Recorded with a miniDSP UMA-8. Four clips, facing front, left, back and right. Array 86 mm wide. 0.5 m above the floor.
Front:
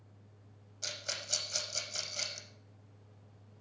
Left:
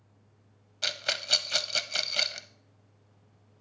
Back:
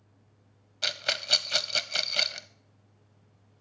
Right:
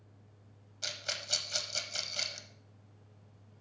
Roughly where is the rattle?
Behind left.